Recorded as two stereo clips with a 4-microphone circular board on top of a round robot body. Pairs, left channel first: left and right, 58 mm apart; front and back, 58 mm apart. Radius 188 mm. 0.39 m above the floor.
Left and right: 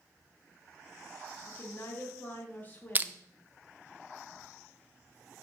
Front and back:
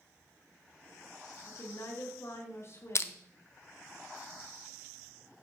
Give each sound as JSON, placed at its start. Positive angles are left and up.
{"t": 1.4, "sound": "a woman speaking", "azimuth_deg": 30, "distance_m": 1.6}
{"t": 3.0, "sound": "crushing", "azimuth_deg": -30, "distance_m": 0.6}